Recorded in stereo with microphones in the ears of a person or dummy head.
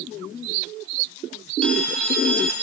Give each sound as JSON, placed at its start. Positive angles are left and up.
{"t": 1.6, "sound": "a phone ringing", "side_deg": 5, "distance_m": 4.0}